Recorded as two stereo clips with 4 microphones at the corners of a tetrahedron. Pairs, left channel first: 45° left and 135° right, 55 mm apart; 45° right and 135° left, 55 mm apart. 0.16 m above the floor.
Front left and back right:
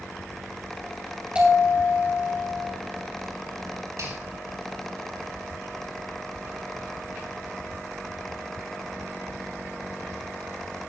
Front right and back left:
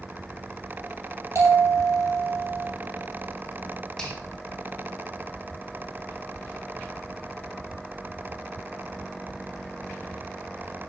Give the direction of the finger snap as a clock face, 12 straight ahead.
4 o'clock.